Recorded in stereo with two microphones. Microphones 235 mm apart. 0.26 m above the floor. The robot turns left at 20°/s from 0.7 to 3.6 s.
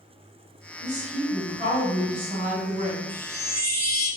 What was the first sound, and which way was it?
A woman speaking, 60° right.